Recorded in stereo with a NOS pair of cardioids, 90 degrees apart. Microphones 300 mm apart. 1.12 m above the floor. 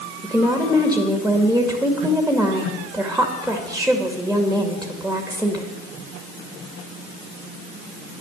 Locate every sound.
0.2 s a woman speaking: straight ahead, 2 m